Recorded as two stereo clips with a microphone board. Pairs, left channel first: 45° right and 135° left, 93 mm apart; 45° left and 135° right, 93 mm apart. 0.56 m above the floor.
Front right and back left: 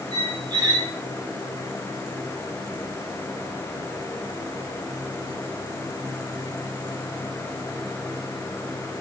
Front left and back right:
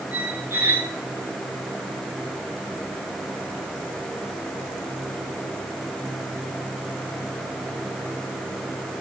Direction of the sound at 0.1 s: 165° left.